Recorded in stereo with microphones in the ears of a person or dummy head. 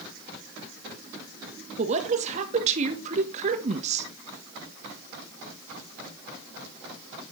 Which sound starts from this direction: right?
A woman speaking, at 1.8 s.